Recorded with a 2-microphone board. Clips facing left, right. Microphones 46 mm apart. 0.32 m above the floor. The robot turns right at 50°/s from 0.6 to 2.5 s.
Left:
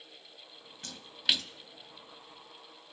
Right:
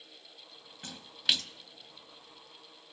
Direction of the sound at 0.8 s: 20° right (ahead or behind).